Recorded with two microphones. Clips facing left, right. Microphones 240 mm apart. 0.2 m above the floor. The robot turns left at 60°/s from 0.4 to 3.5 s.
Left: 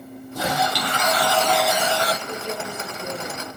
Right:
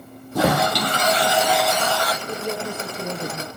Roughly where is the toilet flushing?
Right.